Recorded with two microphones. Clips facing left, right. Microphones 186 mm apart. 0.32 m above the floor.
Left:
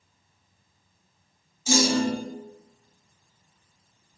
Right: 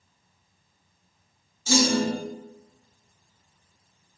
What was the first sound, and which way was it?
A clunk, 10° left (ahead or behind).